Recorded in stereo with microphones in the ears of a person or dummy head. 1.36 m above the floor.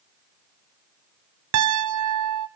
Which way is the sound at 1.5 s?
90° right.